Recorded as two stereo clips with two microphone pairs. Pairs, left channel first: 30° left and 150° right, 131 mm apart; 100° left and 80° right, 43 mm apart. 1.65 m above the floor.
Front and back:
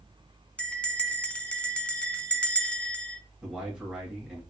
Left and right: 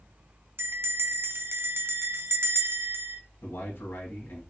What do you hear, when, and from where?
0.6 s a bell: 55° right, 0.6 m
3.4 s a man speaking: 130° left, 2 m